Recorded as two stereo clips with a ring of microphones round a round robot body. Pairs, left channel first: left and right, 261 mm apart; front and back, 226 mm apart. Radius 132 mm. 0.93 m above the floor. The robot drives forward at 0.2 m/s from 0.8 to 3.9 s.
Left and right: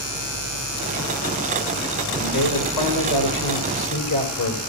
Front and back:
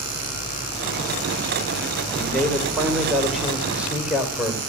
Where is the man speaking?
90° left, 3.5 m; by 4.6 s 95° left, 3.5 m.